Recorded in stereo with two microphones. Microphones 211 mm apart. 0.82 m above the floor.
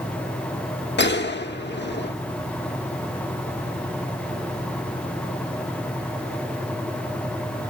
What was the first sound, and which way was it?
A gunshot, 55° left (ahead or behind).